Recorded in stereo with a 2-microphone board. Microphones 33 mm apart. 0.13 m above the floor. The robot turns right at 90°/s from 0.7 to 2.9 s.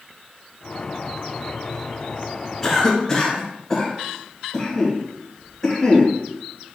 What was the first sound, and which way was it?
A cough, 10° left (ahead or behind).